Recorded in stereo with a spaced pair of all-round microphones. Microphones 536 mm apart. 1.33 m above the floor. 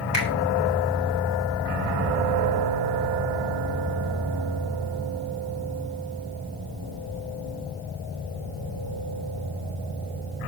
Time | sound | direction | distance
0.1 | a finger snap | 50° left (ahead or behind) | 3.5 m